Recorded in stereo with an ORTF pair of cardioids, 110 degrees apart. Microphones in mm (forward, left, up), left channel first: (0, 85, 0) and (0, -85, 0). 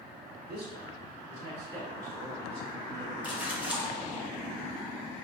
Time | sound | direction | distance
0.5 | a man speaking | 65° right | 1.3 m
3.2 | a splash | 10° right | 0.7 m